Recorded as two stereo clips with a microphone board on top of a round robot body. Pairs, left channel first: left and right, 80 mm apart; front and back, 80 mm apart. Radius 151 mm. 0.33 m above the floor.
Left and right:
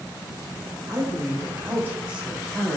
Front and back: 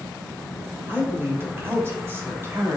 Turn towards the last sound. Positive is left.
turn(degrees=170)